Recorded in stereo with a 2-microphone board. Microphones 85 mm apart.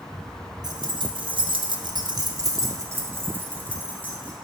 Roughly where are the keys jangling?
Right.